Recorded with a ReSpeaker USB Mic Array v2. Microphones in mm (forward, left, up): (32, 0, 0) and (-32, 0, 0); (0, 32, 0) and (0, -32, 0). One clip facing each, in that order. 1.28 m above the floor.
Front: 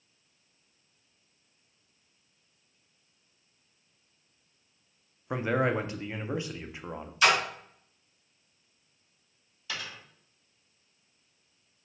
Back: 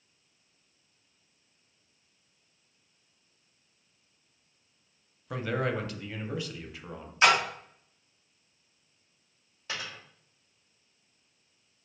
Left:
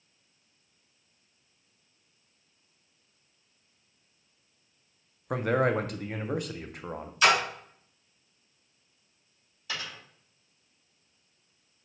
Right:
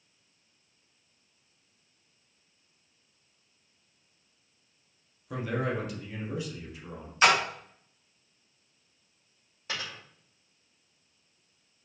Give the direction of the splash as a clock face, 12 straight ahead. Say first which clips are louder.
Back 2 dB, even; 4 o'clock.